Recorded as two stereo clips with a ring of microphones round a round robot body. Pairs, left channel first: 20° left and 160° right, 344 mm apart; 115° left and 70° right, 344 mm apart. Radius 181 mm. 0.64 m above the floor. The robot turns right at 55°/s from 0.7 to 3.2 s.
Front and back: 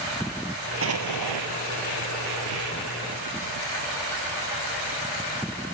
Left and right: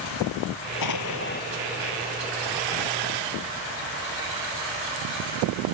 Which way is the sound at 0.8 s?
145° left.